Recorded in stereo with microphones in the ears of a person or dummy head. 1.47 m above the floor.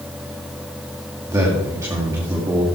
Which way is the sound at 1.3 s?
15° right (ahead or behind).